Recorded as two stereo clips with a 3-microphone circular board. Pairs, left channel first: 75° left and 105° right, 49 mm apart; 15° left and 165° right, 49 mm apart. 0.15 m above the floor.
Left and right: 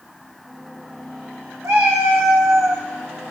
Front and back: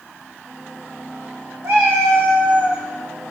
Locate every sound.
1.6 s a cat meowing: 125° right, 3 m; by 2.9 s 100° right, 1.6 m